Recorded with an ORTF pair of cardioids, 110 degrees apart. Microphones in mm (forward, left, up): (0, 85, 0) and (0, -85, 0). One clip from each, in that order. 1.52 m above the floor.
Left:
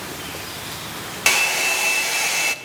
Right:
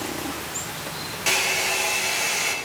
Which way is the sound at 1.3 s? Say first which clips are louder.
Left 4 dB; 60° left.